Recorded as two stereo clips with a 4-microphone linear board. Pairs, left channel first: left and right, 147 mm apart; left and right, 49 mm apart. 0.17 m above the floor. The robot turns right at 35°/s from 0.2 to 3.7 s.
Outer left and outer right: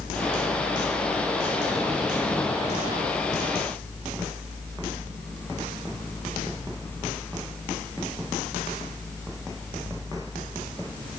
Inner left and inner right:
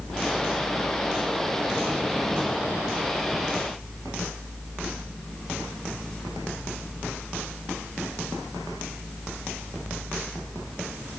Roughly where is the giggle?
I don't hear a giggle.